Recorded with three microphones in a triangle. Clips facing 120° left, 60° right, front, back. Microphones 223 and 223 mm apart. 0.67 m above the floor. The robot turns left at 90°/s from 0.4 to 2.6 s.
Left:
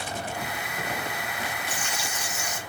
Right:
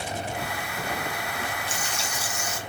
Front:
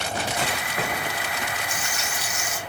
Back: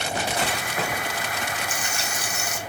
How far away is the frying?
About 1.1 m.